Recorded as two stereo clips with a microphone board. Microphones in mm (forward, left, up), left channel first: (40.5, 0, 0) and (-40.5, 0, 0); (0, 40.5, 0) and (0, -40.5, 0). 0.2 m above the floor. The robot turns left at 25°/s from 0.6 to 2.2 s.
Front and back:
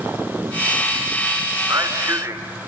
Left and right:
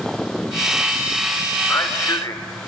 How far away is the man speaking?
About 2 m.